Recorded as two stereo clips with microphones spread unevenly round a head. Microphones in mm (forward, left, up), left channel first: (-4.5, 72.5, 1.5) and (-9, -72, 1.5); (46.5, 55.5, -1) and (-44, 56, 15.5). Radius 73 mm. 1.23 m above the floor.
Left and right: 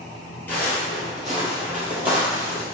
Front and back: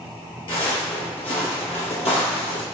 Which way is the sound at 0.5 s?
15° left.